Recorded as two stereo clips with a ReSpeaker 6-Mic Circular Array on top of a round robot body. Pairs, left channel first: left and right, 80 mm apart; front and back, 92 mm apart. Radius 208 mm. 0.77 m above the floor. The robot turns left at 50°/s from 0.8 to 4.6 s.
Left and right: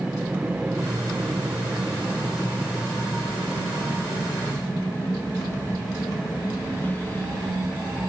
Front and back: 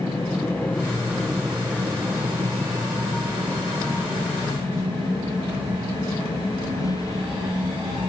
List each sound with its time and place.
0.0 s an aircraft: 30° right; by 8.1 s 30° left